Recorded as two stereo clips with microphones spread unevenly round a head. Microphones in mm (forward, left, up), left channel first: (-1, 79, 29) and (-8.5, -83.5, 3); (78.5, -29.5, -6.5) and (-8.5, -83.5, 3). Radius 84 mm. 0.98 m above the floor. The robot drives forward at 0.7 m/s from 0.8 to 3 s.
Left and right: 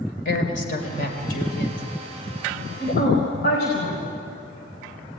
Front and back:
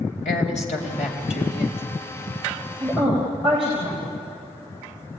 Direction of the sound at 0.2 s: 45° left.